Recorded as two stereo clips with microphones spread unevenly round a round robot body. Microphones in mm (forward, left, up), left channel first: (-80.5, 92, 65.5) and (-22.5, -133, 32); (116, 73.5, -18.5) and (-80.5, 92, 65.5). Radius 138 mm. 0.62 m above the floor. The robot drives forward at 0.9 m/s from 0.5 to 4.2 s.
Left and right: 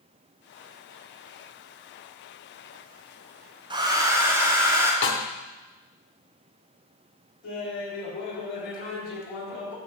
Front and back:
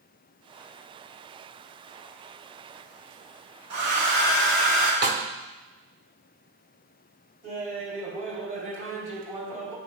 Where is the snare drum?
140° left, 0.8 m.